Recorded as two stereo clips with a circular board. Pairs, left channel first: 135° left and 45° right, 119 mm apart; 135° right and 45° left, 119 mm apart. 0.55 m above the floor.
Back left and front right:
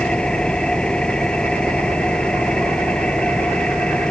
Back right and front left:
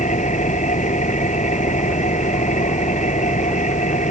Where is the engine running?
145° right.